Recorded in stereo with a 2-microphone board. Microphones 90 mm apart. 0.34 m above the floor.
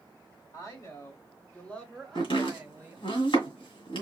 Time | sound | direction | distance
0.5 | a woman speaking | 40° left (ahead or behind) | 1.7 m
2.1 | chopping | 70° left (ahead or behind) | 2 m